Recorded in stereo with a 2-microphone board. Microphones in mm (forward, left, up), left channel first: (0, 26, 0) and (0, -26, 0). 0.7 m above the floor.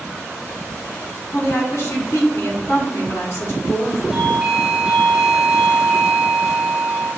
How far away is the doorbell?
About 2.0 m.